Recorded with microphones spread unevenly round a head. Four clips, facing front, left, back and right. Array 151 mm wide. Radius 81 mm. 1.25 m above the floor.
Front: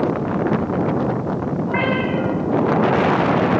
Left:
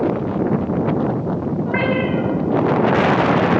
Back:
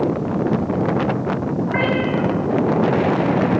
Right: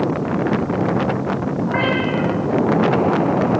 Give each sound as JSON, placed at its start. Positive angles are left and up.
{"t": 1.6, "sound": "a cat meowing", "azimuth_deg": 70, "distance_m": 5.0}